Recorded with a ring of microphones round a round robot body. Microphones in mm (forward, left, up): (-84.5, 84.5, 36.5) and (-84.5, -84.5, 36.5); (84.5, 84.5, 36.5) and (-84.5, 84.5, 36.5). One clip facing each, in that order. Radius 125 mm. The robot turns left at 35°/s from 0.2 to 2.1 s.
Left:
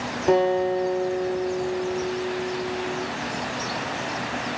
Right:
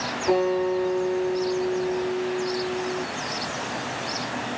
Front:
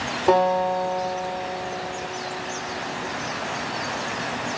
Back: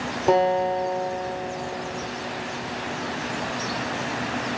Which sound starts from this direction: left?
A guitar, at 0.3 s.